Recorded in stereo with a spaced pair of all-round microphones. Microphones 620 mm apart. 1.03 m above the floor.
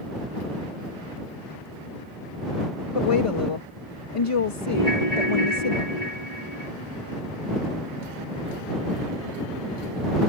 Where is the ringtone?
85° left.